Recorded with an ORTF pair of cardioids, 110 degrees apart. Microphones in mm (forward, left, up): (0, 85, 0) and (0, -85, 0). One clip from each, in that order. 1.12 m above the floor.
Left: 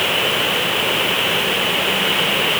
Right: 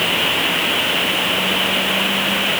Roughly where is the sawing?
I don't hear sawing.